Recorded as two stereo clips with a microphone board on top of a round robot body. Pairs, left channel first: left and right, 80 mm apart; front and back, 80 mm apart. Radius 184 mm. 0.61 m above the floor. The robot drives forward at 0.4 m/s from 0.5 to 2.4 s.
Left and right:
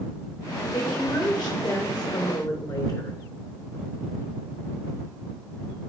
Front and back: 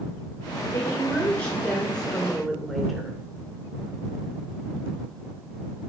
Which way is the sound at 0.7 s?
35° left.